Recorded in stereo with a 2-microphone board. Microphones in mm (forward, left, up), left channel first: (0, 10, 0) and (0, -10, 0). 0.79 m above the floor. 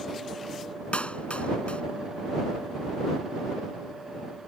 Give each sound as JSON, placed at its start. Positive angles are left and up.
{"t": 0.9, "sound": "a clap", "side_deg": 75}